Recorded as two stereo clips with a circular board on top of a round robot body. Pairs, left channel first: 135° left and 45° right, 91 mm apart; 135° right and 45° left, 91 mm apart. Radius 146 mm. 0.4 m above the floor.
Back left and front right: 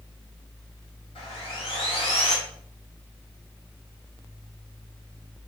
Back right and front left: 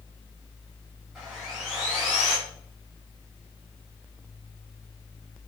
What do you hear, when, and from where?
1.1 s sawing: 130° left, 3.5 m